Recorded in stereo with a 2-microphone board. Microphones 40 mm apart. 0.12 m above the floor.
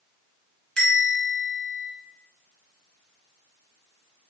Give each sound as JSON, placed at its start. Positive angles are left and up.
{"t": 0.8, "sound": "a bell", "side_deg": 20, "distance_m": 1.5}